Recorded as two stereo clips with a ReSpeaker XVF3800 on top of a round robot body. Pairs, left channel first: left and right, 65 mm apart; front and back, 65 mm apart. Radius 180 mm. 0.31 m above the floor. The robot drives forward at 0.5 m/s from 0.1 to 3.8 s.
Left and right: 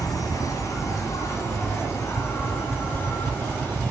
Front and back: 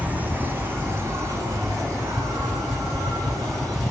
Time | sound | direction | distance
0.0 | an insect | 115° left | 1.3 m